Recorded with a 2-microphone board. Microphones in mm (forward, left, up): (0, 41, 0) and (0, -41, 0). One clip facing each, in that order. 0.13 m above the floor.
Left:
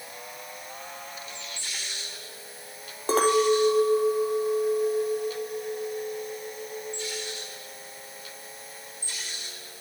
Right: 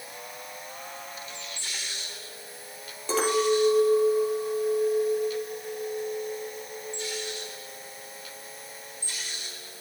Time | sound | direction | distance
3.1 | a clink | 50° left (ahead or behind) | 1.9 m